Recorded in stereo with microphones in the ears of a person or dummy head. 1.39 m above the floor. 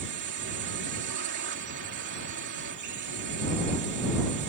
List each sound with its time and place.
0.0 s a drone: 60° right (ahead or behind)